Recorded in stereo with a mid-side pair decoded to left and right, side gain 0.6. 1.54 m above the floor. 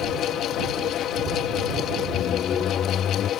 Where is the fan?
55° left.